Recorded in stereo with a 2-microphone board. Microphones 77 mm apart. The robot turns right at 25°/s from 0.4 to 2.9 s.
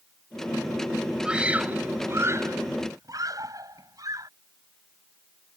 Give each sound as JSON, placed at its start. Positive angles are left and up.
{"t": 1.2, "sound": "a scream", "side_deg": -10}